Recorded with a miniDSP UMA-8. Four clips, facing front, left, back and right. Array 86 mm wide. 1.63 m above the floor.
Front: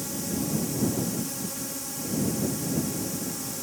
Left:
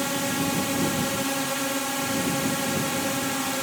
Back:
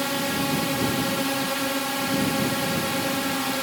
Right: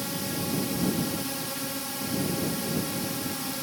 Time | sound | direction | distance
0.0 | a drone | 140° left | ?